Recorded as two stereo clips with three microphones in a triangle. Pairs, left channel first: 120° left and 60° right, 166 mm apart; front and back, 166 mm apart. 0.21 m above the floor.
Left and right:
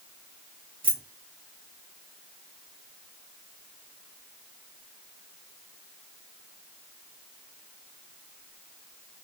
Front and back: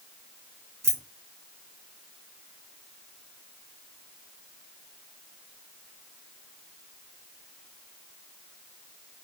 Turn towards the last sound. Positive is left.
turn(degrees=-110)